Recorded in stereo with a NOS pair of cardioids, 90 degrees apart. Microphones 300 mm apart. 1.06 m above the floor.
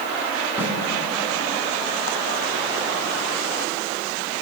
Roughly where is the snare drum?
Ahead.